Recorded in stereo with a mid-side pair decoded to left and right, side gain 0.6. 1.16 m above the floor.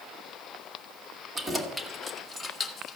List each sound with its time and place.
1.4 s keys jangling: 20° right, 2.5 m; by 3.0 s 40° left, 1.7 m